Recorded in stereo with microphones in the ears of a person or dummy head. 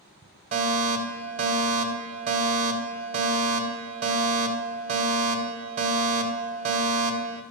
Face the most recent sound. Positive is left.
turn(degrees=-40)  # may be behind; listen again after turning